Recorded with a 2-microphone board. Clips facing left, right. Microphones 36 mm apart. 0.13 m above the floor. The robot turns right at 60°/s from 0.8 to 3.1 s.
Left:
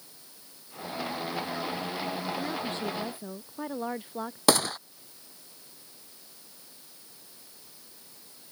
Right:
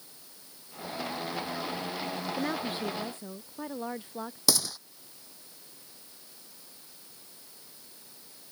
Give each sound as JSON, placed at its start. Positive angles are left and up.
{"t": 2.4, "sound": "a woman speaking", "azimuth_deg": -30}
{"t": 4.5, "sound": "a gunshot", "side_deg": 45}